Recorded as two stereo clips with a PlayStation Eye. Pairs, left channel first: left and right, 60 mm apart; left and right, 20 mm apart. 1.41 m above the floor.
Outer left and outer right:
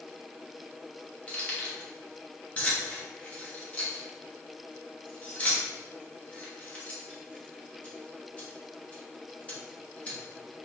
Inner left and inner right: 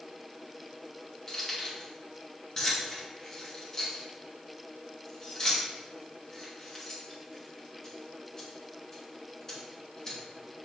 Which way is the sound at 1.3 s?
20° left (ahead or behind).